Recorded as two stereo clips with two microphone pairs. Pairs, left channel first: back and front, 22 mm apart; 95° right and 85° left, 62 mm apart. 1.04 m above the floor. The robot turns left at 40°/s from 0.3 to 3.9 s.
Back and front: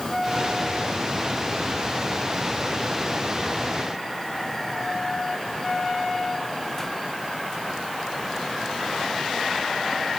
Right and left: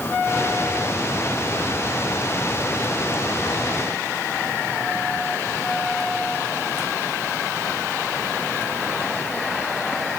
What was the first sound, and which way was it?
Only background noise.